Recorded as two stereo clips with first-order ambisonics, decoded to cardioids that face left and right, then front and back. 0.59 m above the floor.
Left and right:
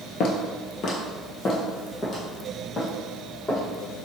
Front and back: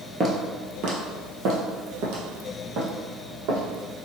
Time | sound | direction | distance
0.2 | footsteps | 115° left | 0.7 m